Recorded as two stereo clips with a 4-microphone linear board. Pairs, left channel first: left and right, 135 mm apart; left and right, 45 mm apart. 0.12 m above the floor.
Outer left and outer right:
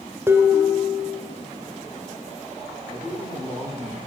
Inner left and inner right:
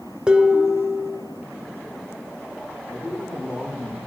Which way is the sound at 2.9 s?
Centre (ahead or behind).